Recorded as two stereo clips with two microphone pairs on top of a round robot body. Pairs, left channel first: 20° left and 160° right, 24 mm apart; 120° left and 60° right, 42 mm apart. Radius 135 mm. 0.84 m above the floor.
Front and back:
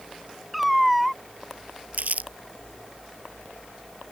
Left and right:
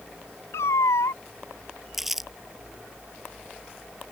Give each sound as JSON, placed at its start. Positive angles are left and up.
{"t": 0.5, "sound": "a cat meowing", "azimuth_deg": 110}
{"t": 1.9, "sound": "crumpling", "azimuth_deg": -145}